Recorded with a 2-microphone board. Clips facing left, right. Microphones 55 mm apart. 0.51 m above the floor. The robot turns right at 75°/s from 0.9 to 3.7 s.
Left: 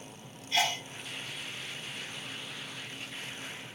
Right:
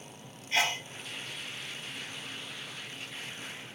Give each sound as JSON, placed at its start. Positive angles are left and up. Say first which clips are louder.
{"t": 0.5, "sound": "a sneeze", "louder": "right 1 dB", "side_deg": -40, "distance_m": 1.7}